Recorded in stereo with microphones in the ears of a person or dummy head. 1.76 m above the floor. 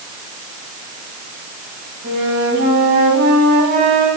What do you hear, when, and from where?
2.0 s a flute: 60° right (ahead or behind), 4.5 m